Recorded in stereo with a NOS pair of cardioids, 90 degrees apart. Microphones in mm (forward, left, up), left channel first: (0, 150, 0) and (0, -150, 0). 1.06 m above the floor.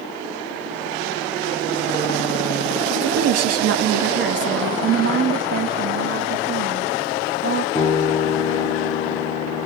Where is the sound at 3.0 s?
70° right, 1.5 m; by 4.7 s 35° right, 1.9 m.